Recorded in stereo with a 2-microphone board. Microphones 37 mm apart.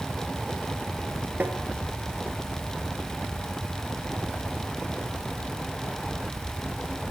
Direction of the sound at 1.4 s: 50° right (ahead or behind).